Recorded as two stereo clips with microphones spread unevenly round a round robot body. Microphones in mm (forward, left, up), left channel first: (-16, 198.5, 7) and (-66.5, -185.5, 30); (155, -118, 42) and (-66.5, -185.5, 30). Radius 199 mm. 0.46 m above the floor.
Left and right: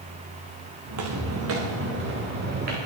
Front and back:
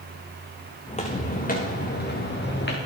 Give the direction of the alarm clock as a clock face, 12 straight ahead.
I don't hear an alarm clock.